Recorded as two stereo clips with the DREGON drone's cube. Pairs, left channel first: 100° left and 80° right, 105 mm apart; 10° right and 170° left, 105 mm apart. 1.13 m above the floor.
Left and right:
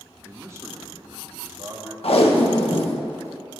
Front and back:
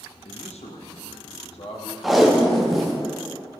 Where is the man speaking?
10° right, 0.9 m; by 1.9 s 25° right, 1.8 m.